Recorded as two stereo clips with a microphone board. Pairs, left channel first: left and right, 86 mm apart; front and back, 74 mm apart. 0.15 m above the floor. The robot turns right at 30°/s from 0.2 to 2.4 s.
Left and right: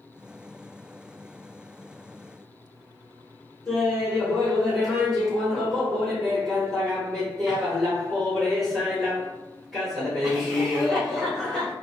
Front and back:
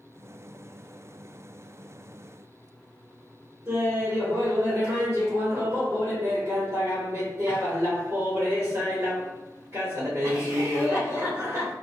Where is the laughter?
Straight behind, 1.5 m.